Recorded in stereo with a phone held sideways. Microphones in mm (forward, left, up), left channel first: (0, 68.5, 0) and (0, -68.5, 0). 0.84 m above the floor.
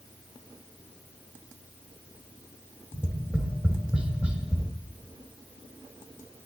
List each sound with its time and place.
2.9 s tapping: 10° right (ahead or behind), 2.5 m